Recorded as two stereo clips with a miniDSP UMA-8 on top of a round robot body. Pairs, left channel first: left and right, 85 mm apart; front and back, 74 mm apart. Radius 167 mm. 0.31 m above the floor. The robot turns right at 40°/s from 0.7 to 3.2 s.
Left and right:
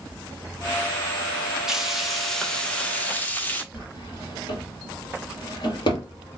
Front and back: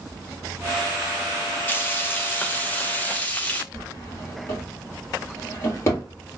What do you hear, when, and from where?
1.7 s frying: 15° right, 1.2 m; by 3.6 s 45° left, 1.2 m
3.7 s a drawer: 55° left, 2.0 m